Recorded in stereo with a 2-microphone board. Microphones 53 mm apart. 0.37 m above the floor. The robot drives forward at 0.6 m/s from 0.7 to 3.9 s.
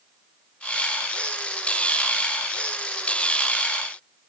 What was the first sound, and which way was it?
Only background noise.